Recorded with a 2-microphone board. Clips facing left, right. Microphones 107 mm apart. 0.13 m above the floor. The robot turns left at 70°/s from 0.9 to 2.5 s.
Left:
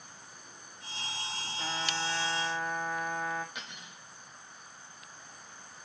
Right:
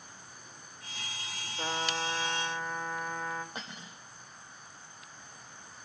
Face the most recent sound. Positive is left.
turn(degrees=-35)  # may be behind; listen again after turning